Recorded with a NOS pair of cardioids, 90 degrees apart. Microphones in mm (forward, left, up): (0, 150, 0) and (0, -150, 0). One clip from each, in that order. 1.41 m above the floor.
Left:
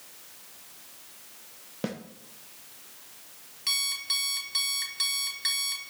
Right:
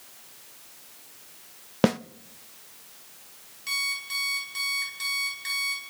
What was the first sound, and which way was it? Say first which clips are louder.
A snare drum: right 12 dB; 50° right.